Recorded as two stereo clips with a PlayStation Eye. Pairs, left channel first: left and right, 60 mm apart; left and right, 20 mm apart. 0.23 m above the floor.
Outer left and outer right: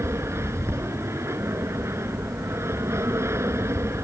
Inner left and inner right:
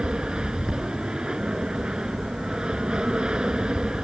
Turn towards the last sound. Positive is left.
turn(degrees=-50)  # may be behind; listen again after turning